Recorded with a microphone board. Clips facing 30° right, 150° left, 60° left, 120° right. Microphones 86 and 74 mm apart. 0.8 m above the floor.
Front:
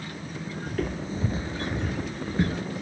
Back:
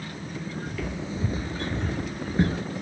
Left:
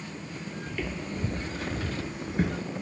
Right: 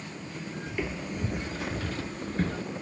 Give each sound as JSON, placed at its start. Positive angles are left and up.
{"t": 0.7, "sound": "footsteps", "azimuth_deg": -50, "distance_m": 1.2}